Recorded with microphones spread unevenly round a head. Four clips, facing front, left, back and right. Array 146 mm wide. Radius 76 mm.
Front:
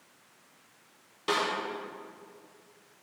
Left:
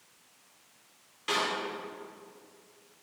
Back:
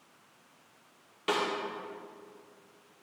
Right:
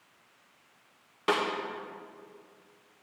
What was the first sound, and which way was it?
A snare drum, 90° right.